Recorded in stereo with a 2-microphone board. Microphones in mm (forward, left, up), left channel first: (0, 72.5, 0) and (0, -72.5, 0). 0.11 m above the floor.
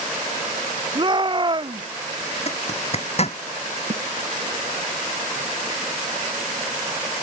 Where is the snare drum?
50° right (ahead or behind).